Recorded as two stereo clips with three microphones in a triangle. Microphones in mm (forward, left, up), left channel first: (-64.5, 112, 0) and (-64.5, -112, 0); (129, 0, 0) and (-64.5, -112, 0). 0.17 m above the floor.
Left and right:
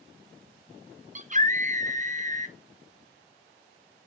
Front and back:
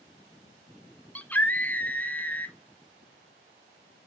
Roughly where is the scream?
Ahead right.